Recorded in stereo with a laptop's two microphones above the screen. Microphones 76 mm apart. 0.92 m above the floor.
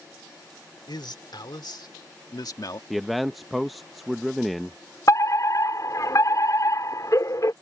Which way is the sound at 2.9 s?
Centre (ahead or behind).